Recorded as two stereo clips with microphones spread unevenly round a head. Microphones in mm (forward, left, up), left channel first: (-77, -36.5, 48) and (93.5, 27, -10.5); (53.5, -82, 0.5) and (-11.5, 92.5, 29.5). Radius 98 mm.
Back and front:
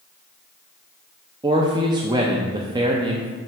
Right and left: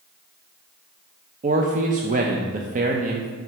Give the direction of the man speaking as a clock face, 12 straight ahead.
10 o'clock.